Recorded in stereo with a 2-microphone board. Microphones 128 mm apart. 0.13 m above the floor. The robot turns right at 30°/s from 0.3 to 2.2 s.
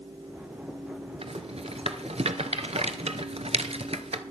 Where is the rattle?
55° right (ahead or behind), 0.8 m.